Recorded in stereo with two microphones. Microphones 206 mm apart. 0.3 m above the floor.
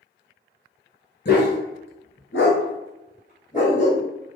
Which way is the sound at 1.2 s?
55° left (ahead or behind).